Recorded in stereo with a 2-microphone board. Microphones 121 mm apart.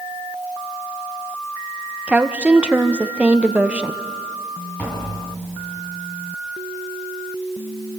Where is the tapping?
10° left (ahead or behind), 7 m.